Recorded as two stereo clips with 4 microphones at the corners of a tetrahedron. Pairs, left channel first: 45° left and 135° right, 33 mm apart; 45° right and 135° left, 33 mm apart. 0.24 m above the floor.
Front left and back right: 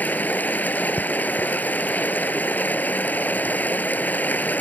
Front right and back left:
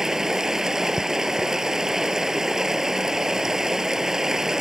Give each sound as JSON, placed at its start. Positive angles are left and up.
{"t": 0.0, "sound": "running water", "azimuth_deg": 60}